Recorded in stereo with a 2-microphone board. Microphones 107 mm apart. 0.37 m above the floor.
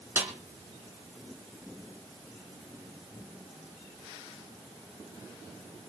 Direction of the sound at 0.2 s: 20° right (ahead or behind).